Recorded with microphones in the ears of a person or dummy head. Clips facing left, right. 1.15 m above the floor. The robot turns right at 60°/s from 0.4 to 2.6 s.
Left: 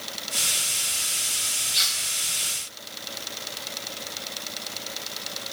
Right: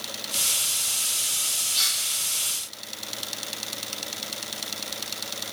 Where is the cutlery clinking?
30° left (ahead or behind), 0.6 m; by 2.0 s 40° left (ahead or behind), 0.6 m.